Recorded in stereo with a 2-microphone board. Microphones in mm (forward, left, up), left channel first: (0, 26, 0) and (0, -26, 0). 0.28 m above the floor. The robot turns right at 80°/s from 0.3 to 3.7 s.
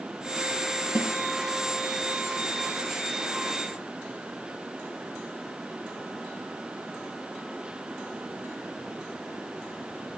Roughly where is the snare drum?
Right.